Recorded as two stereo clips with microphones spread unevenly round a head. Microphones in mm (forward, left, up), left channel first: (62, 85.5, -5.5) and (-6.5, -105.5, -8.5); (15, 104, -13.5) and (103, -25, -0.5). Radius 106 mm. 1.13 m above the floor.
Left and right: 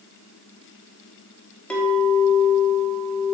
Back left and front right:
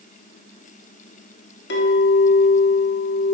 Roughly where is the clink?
Behind left.